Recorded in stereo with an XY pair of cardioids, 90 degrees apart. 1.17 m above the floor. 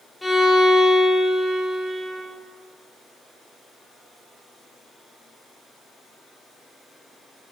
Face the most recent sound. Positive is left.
turn(degrees=5)